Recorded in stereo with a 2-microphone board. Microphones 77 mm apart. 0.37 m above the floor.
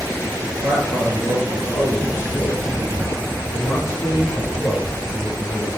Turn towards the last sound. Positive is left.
turn(degrees=55)  # may be behind; listen again after turning